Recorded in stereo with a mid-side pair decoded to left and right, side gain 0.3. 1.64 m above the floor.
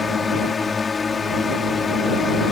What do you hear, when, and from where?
0.0 s a drone: 50° left